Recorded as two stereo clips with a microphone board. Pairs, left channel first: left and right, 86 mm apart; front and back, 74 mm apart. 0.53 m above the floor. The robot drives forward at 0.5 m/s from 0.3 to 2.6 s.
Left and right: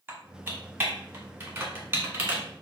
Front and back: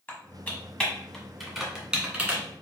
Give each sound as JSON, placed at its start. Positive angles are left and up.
{"t": 0.1, "sound": "typing on a keyboard", "azimuth_deg": -45, "distance_m": 1.3}